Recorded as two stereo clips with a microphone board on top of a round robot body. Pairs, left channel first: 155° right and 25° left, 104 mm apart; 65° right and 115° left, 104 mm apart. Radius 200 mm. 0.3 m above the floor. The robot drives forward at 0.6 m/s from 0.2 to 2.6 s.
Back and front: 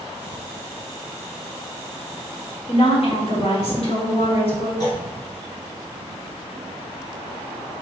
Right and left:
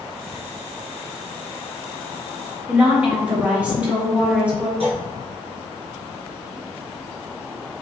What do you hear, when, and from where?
2.7 s a woman speaking: 170° right, 2.0 m
4.8 s a clunk: 150° left, 1.2 m